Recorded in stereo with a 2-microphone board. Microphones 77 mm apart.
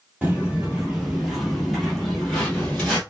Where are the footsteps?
15° right (ahead or behind), 1.5 m; by 3.0 s 15° left (ahead or behind), 1.7 m.